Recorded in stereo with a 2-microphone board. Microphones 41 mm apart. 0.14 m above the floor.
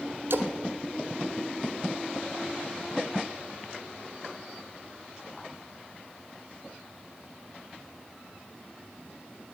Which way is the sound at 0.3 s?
70° right (ahead or behind).